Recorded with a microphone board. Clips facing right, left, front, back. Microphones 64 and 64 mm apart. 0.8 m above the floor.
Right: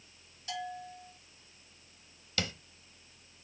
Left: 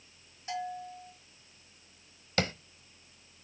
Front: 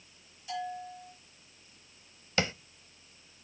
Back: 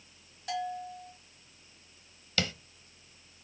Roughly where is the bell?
Behind left.